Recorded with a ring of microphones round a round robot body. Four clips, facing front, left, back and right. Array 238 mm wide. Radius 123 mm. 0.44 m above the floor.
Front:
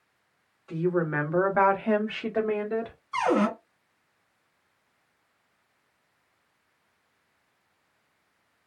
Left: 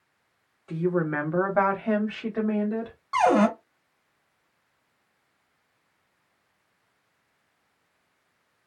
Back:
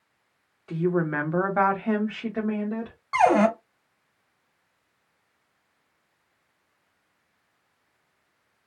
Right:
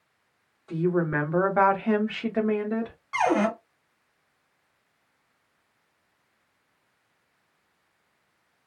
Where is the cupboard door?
160° left, 1.2 m.